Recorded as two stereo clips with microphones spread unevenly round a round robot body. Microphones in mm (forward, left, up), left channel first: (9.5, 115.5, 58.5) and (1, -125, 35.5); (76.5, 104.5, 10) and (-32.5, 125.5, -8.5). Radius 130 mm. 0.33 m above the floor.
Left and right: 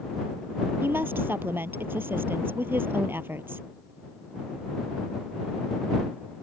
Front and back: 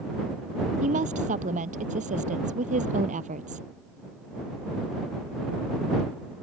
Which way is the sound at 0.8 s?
175° right.